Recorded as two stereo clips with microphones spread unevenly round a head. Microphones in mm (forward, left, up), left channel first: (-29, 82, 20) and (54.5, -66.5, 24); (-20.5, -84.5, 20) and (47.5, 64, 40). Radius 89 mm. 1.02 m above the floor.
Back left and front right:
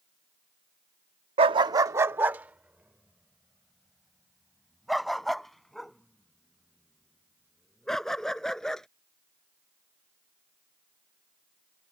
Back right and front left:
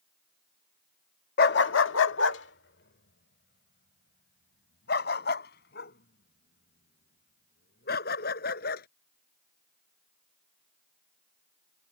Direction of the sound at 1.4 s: 105° right.